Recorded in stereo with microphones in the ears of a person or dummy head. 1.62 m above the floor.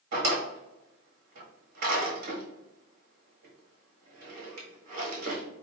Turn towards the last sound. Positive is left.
turn(degrees=-65)  # may be behind; listen again after turning